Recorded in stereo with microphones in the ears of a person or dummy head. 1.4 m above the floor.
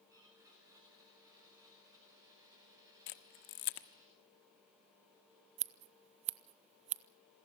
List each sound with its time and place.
0.1 s a blender: 20° right (ahead or behind), 9.5 m
3.1 s a camera shutter: 50° left (ahead or behind), 1.4 m
5.6 s scissors: 40° right (ahead or behind), 0.6 m